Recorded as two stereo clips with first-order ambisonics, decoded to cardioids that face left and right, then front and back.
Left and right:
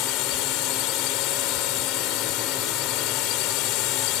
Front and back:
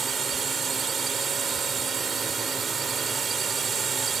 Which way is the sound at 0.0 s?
115° left.